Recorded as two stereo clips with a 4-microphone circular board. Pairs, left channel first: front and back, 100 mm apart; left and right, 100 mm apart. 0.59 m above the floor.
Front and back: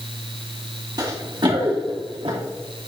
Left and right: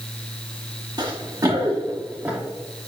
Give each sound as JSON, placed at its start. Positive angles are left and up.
{"t": 1.0, "sound": "running footsteps", "azimuth_deg": -135, "distance_m": 3.0}